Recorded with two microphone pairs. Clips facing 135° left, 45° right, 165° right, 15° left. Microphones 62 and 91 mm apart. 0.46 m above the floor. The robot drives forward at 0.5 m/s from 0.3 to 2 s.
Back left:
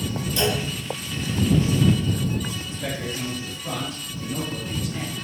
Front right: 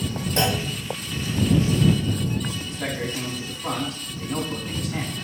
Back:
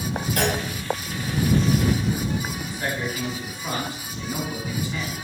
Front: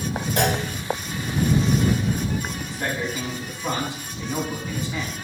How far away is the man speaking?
About 3.5 m.